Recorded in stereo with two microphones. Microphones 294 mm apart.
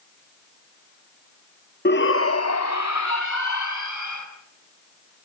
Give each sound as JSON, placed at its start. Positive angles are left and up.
{"t": 1.9, "sound": "a shout", "side_deg": 35, "distance_m": 0.9}